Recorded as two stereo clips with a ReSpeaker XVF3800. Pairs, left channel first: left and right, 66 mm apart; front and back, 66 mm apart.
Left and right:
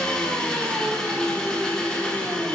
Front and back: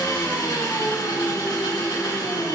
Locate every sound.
0.0 s an engine running: 10° left, 1.2 m